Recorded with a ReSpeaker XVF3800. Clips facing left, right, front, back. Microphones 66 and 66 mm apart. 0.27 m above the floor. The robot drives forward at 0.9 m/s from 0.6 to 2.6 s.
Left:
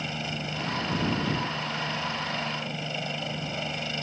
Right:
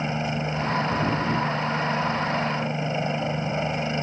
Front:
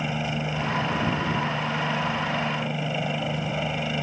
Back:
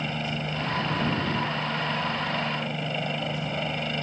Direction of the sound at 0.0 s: 70° right.